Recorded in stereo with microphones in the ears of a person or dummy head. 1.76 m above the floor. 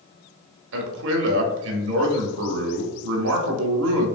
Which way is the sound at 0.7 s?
70° right (ahead or behind).